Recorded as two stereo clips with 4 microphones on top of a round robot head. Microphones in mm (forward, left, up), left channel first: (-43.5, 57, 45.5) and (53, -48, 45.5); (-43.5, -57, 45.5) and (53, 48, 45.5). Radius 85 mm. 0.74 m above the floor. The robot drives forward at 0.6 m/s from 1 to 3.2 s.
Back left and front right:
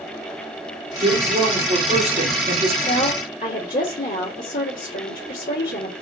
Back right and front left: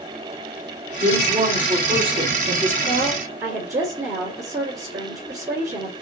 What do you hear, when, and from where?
1.0 s a woman speaking: 5° right, 2.5 m
2.9 s a woman speaking: 105° left, 1.8 m; by 5.9 s 115° left, 1.8 m